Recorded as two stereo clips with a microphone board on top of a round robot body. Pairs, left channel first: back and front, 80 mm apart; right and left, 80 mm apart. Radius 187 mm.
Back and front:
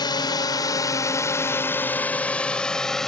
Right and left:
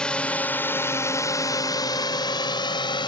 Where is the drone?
165° right; by 3.1 s 95° right.